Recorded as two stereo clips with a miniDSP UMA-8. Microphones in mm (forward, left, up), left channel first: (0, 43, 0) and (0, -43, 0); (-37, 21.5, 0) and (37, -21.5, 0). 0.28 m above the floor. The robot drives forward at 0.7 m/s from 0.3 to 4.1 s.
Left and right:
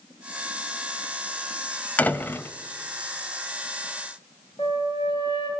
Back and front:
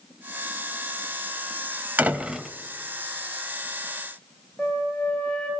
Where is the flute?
65° left, 8 m.